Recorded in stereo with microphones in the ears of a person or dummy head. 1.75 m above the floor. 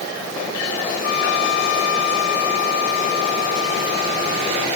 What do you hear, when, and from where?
1.0 s a trumpet: 75° left (ahead or behind)